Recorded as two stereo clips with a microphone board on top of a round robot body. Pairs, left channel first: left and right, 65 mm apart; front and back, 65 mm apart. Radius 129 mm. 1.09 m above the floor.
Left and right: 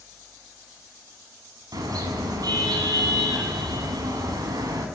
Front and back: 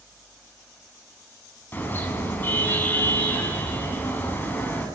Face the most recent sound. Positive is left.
turn(degrees=-60)